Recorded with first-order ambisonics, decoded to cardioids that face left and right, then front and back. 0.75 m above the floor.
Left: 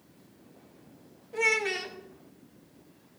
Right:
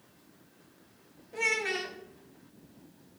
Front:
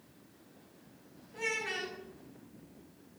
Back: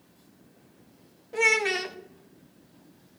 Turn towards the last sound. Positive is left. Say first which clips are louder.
# left 3 dB, back 12 dB
turn(degrees=170)